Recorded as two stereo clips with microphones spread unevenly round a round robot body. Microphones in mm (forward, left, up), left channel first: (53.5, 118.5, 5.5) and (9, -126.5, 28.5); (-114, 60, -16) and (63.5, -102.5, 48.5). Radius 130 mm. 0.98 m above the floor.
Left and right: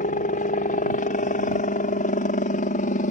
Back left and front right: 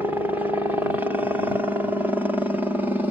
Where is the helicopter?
55° left.